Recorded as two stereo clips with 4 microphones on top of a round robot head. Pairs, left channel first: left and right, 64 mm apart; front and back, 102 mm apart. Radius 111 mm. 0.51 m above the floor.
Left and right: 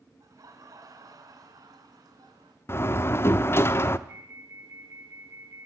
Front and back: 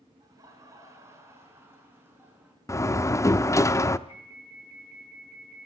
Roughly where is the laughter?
Behind right.